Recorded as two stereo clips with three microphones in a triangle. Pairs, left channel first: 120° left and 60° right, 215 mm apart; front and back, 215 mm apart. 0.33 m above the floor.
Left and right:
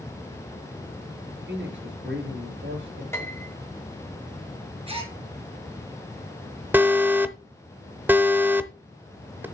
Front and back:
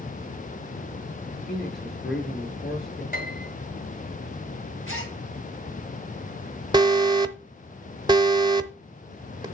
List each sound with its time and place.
1.3 s a man speaking: 35° right, 5 m
3.1 s a piano: 45° left, 2.5 m
4.9 s a gasp: straight ahead, 2.0 m
6.7 s an alarm: 135° right, 0.8 m